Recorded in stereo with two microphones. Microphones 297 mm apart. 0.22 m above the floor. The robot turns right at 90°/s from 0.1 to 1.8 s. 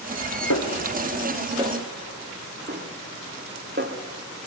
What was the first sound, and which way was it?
A snare drum, 70° left (ahead or behind).